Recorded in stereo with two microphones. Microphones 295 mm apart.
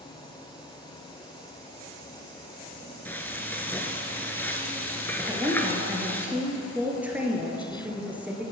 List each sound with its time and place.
3.0 s frying: 5° left (ahead or behind), 0.8 m
5.3 s a woman speaking: 5° right (ahead or behind), 1.7 m